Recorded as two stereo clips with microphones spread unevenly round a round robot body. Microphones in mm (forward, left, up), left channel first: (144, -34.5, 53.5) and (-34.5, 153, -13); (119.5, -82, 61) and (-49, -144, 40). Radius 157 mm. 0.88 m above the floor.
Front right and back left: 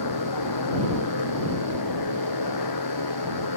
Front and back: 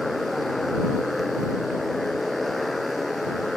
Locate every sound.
0.0 s a motorcycle: 70° right